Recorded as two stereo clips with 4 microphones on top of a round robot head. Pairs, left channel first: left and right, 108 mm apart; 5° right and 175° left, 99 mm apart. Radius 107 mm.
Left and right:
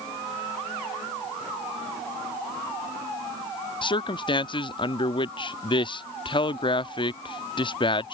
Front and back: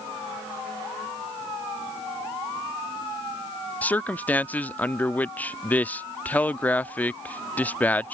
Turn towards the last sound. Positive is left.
turn(degrees=70)